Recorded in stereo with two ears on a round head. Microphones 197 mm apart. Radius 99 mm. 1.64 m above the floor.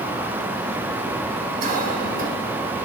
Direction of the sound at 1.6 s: 40° right (ahead or behind).